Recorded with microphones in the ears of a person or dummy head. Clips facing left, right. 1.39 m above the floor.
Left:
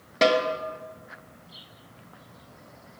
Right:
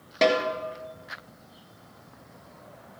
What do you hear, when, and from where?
0.2 s a snare drum: centre (ahead or behind), 1.2 m